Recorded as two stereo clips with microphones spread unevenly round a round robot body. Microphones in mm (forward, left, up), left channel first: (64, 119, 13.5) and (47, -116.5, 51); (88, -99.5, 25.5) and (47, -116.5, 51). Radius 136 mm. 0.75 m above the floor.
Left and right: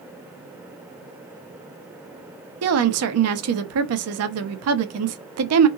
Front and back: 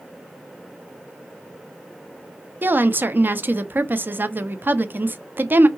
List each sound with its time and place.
2.6 s a woman speaking: 90° right, 0.7 m